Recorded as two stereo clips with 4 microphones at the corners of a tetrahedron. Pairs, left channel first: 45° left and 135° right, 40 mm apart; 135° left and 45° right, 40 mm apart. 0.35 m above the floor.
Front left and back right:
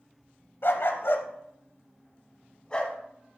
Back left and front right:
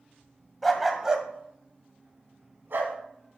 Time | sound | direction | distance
0.6 | a dog barking | 50° left | 0.8 m